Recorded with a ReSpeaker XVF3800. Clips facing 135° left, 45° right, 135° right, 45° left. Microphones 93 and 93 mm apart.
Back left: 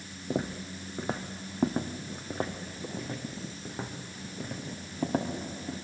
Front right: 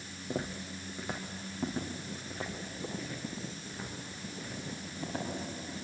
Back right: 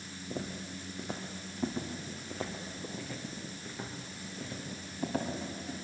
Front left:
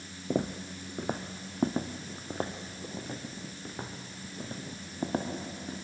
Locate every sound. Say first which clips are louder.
0.3 s footsteps: back left 5 dB, front left 8 dB; 60° left, 1.2 m; by 5.8 s 100° left, 5 m